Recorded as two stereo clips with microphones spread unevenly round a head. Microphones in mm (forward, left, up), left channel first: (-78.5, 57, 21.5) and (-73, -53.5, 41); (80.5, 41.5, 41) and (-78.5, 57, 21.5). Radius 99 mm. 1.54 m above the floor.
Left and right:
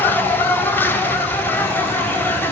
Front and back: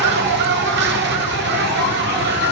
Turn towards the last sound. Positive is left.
turn(degrees=170)